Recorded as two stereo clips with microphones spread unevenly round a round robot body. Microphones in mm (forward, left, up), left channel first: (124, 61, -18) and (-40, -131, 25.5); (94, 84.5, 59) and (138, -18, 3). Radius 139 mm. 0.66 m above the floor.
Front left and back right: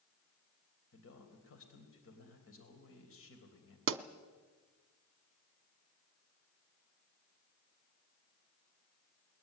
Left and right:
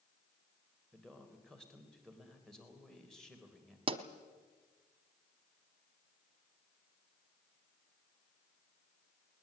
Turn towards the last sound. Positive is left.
turn(degrees=-90)